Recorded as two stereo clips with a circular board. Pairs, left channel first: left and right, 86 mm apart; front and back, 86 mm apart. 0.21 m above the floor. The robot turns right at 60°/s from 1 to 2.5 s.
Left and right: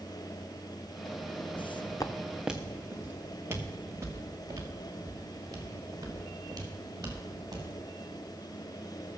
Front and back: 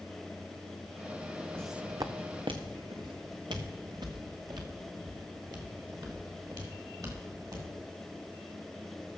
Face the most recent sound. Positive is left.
turn(degrees=-135)